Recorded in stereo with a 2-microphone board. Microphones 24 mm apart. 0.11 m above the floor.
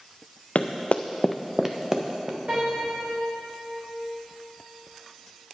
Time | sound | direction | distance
0.6 | running footsteps | 90° left | 0.9 m
2.5 | a piano | 70° right (ahead or behind) | 4 m